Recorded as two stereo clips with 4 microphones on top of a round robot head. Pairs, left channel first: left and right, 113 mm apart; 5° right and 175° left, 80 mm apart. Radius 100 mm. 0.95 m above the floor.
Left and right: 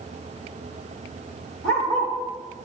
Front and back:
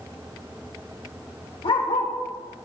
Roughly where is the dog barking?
Ahead.